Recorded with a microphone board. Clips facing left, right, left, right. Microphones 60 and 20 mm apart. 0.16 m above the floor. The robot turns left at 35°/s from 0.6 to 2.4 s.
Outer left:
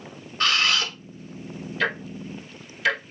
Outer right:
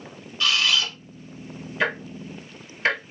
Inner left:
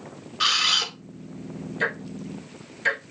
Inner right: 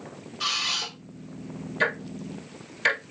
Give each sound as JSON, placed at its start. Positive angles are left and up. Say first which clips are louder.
{"t": 0.4, "sound": "a camera shutter", "louder": "outer left 1 dB, inner left 6 dB", "side_deg": 50, "distance_m": 0.9}
{"t": 1.8, "sound": "ticking", "louder": "outer right 1 dB, inner right 1 dB", "side_deg": -20, "distance_m": 1.2}